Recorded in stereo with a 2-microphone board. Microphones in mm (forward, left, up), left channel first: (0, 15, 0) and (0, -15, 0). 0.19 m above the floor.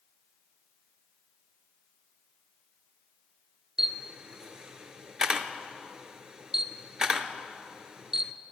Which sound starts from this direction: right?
A camera shutter, at 3.8 s.